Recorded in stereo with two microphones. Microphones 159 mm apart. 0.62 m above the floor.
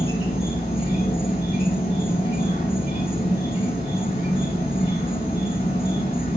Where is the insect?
35° left (ahead or behind), 2 m.